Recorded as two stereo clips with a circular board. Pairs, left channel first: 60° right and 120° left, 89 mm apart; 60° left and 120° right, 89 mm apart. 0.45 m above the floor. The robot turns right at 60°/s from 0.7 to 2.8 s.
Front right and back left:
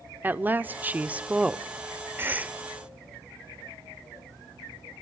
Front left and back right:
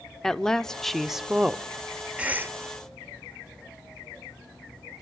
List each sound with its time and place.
0.2 s a woman speaking: 135° left, 0.7 m; by 1.6 s 170° right, 0.7 m
2.2 s a cough: 170° left, 1.5 m; by 2.6 s 170° right, 1.5 m